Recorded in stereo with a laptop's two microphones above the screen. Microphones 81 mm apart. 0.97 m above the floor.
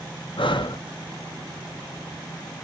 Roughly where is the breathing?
Left.